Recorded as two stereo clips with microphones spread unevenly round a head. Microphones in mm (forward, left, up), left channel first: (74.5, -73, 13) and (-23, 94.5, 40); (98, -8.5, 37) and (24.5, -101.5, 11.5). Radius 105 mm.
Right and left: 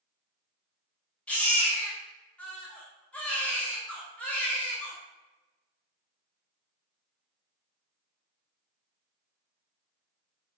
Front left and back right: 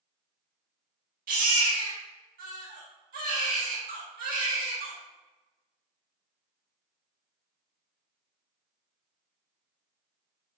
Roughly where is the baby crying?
Behind right.